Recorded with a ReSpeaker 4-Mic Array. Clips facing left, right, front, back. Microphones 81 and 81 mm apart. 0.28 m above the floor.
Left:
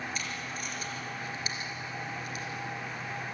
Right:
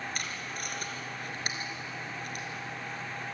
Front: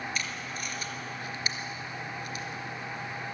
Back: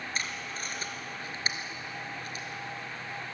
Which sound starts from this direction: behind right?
Tape being pulled, at 0.1 s.